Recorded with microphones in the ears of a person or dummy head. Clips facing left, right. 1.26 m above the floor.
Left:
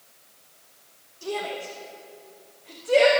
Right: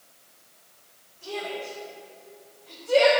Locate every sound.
1.2 s a shout: 55° left (ahead or behind), 1.3 m; by 3.1 s 20° left (ahead or behind), 1.9 m